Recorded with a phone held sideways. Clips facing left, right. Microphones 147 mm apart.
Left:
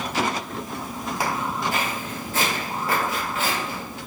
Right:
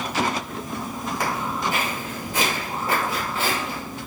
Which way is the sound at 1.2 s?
10° left (ahead or behind).